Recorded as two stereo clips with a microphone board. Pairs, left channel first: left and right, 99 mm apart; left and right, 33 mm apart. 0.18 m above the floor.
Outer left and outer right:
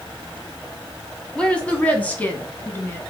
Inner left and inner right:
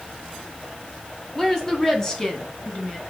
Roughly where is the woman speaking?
Centre.